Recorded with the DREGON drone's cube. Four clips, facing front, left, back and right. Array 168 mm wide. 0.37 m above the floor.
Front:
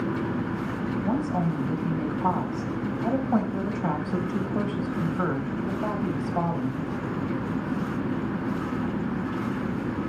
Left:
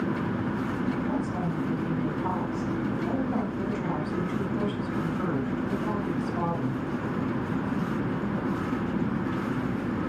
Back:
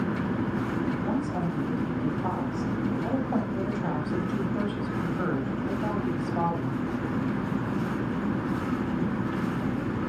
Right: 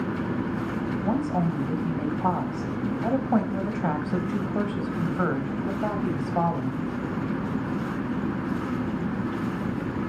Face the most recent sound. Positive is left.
turn(degrees=-65)